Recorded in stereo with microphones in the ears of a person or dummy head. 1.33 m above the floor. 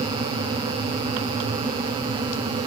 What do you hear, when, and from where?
Only background noise.